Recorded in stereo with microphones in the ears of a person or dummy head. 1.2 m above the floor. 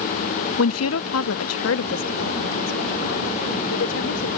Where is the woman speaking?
75° left (ahead or behind); by 4.3 s 70° left (ahead or behind).